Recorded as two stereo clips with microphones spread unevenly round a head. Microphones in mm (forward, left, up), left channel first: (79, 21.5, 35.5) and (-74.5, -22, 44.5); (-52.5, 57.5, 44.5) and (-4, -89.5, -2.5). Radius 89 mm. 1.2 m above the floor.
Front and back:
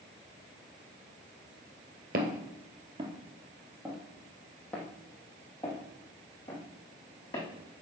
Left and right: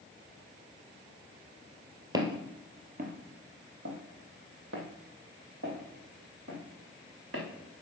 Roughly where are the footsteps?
Behind right.